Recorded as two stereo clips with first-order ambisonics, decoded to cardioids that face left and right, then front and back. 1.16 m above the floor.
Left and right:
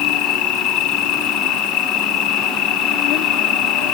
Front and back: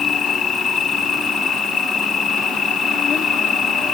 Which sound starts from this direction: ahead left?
An insect, at 0.0 s.